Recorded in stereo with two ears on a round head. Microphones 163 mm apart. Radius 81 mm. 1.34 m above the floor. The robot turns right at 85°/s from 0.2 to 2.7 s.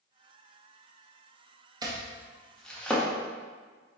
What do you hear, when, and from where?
1.8 s chopping: 20° right (ahead or behind), 0.7 m; by 3.1 s 5° left (ahead or behind), 0.7 m